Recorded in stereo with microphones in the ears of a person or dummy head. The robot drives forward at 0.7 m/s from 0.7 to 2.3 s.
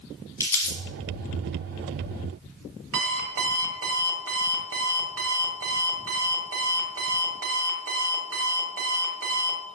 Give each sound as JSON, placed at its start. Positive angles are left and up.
{"t": 0.4, "sound": "crumpling", "side_deg": 10, "distance_m": 1.5}
{"t": 2.9, "sound": "an alarm clock", "side_deg": -80, "distance_m": 1.6}